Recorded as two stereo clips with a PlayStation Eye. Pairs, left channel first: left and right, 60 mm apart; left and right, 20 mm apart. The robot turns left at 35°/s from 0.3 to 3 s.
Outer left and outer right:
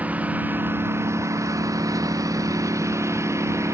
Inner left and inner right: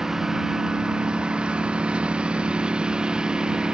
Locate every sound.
0.0 s a lawn mower: 25° right; by 3.8 s 120° right